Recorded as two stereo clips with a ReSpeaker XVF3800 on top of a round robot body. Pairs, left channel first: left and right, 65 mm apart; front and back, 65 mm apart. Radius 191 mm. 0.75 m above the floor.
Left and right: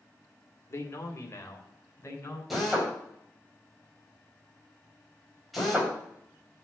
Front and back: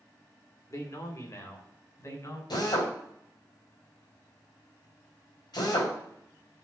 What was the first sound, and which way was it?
A man speaking, 40° left.